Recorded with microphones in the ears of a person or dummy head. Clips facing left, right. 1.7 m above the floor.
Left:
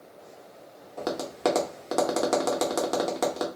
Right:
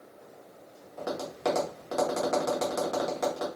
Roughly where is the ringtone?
No ringtone in this recording.